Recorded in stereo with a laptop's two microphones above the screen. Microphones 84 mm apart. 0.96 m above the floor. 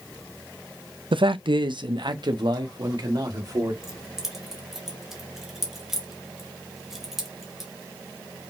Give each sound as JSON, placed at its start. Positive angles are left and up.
{"t": 1.1, "sound": "a man speaking", "side_deg": -70, "distance_m": 0.5}
{"t": 3.8, "sound": "keys jangling", "side_deg": 0, "distance_m": 1.5}